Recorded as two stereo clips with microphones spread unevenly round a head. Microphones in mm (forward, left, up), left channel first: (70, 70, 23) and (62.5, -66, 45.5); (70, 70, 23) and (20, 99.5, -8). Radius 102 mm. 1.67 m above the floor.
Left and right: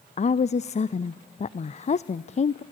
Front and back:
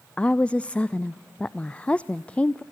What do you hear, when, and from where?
0.2 s a woman speaking: 45° left, 0.5 m